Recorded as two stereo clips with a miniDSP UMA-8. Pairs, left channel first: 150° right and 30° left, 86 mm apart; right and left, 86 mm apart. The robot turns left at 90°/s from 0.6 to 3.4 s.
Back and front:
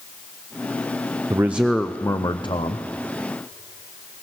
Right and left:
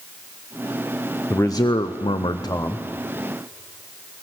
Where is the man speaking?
25° right, 0.8 m; by 2.9 s 165° right, 0.8 m.